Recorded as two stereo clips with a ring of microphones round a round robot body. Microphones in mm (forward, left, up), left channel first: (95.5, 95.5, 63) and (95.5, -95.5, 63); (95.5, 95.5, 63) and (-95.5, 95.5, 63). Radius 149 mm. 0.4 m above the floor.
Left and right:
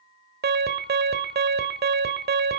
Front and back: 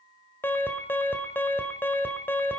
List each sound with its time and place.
0.4 s an alarm: 80° right, 1.7 m